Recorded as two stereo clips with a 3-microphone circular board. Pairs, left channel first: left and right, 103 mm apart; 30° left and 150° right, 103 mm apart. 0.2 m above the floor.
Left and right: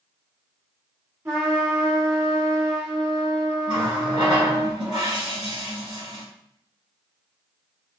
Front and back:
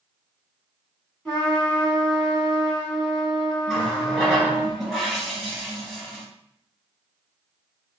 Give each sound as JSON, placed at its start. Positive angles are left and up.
{"t": 1.2, "sound": "a trumpet", "azimuth_deg": -45, "distance_m": 1.8}
{"t": 3.7, "sound": "a running tap", "azimuth_deg": -60, "distance_m": 2.0}